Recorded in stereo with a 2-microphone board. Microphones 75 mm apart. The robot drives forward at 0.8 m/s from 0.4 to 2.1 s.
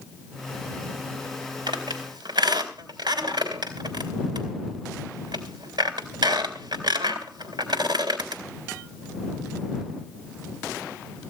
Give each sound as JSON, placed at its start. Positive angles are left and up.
{"t": 1.7, "sound": "a squeak", "side_deg": -80, "distance_m": 3.5}